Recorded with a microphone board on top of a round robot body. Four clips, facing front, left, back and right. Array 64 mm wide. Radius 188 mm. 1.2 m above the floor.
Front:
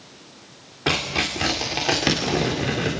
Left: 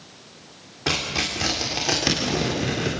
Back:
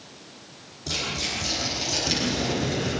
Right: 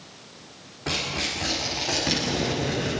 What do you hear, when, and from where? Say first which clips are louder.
0.9 s tearing paper: left 3 dB, front 7 dB; 20° left, 3.5 m